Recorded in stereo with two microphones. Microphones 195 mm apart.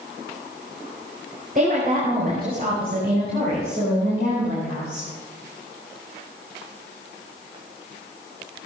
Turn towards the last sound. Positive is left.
turn(degrees=-60)  # may be behind; listen again after turning